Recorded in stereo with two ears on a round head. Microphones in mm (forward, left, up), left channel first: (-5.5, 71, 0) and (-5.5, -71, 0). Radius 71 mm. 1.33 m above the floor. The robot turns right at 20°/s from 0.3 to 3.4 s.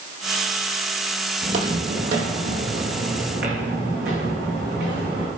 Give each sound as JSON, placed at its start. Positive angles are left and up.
{"t": 1.4, "sound": "footsteps", "side_deg": -45, "distance_m": 2.0}